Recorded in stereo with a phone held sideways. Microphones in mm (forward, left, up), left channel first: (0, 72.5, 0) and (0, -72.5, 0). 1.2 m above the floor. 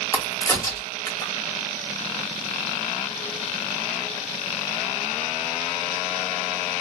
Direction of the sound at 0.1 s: 20° left (ahead or behind).